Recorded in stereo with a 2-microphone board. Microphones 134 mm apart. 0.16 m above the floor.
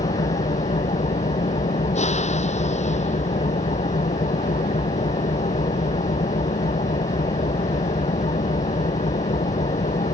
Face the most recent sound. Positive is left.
turn(degrees=60)  # may be behind; listen again after turning